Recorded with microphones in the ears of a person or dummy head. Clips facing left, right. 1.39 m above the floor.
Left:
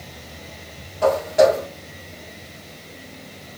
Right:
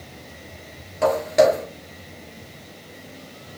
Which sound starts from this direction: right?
Footsteps, at 1.0 s.